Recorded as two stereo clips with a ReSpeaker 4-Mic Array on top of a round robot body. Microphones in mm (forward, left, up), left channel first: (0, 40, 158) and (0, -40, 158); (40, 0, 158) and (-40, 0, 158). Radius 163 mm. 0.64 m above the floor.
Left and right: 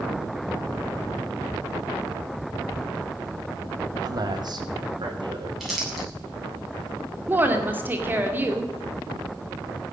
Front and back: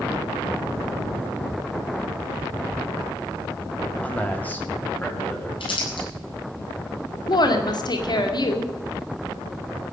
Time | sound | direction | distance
4.0 | a man speaking | 70° right | 2.0 m
5.6 | crumpling | 5° right | 8 m
7.3 | a woman speaking | 25° right | 2.5 m